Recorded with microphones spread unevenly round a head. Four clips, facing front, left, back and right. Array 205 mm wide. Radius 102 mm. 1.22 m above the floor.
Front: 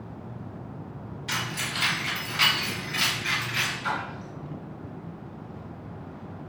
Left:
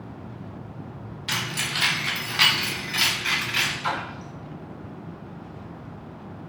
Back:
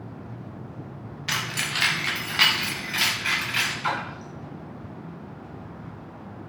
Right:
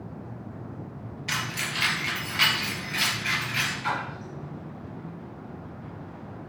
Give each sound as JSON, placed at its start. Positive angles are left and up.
{"t": 1.3, "sound": "keys jangling", "azimuth_deg": 165, "distance_m": 1.4}
{"t": 3.8, "sound": "a splash", "azimuth_deg": 150, "distance_m": 2.5}